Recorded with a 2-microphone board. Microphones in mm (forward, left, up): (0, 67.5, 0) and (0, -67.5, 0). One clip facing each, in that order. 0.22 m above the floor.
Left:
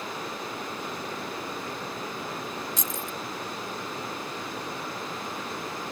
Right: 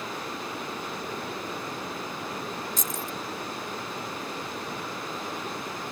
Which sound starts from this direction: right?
Keys jangling, at 2.8 s.